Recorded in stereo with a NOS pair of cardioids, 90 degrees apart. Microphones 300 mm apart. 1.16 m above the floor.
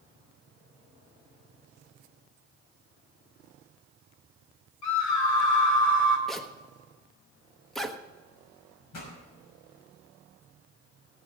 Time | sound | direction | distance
4.8 | a scream | 70° left | 3 m
6.3 | a zipper | straight ahead | 1.1 m
8.9 | a pop | 60° left | 6 m